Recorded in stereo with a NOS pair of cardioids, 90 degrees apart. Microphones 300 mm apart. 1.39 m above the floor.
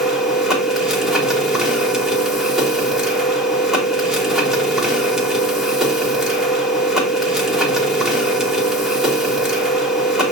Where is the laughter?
I don't hear laughter.